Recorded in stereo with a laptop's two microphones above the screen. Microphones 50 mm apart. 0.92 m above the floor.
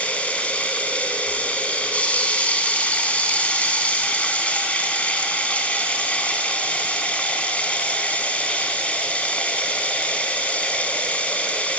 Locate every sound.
0.0 s running water: 25° left (ahead or behind), 4.5 m